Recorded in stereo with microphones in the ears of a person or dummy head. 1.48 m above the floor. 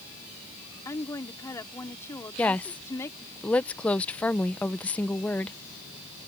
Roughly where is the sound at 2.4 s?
Centre.